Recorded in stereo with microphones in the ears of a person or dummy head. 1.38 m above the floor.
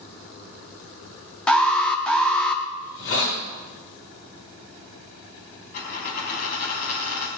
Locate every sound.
1.5 s an alarm: 10° left (ahead or behind), 1.2 m
2.8 s a hiss: 70° left (ahead or behind), 3 m
5.7 s a dropped coin: 50° left (ahead or behind), 3.5 m